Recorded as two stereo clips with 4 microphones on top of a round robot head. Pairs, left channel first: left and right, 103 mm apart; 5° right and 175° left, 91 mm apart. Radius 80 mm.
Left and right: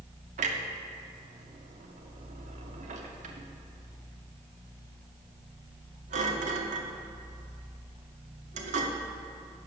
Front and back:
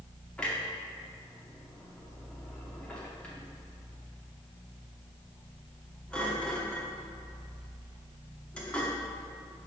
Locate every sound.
0.4 s a clunk: 85° right, 0.7 m